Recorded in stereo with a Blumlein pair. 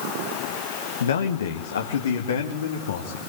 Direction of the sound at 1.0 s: 65° left.